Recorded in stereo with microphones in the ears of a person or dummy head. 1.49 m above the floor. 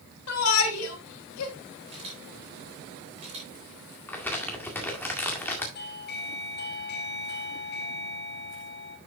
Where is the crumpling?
10° left (ahead or behind), 2.0 m.